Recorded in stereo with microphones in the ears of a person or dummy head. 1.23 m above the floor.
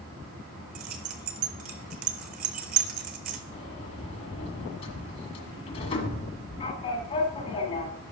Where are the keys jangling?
35° right (ahead or behind), 0.7 m.